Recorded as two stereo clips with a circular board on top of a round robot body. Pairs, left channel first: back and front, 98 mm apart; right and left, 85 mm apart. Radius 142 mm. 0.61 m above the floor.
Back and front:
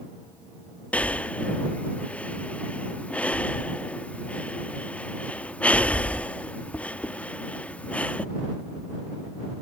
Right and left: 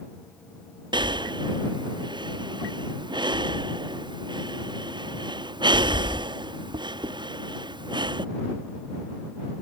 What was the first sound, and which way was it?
Breathing, 105° left.